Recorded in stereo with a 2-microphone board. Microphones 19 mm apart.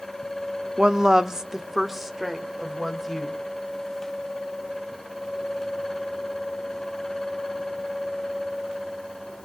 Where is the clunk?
I don't hear a clunk.